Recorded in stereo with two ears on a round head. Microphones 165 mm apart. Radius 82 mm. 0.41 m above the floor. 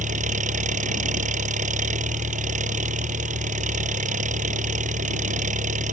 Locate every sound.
0.0 s an engine running: 45° right (ahead or behind)